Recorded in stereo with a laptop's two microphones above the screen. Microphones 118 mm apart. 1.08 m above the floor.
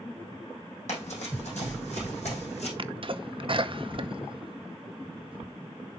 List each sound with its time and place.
0.9 s running footsteps: 75° left (ahead or behind), 3.5 m; by 2.7 s 65° left (ahead or behind), 3.5 m
2.8 s a sneeze: 45° right (ahead or behind), 0.6 m